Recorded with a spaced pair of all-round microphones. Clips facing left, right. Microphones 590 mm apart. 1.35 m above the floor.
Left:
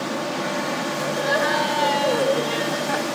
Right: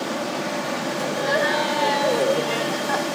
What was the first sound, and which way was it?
Laughter, 35° left (ahead or behind).